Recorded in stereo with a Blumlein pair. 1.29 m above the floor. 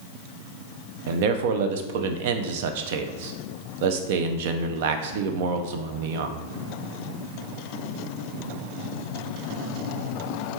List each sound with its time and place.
1.1 s a man speaking: 50° right, 0.5 m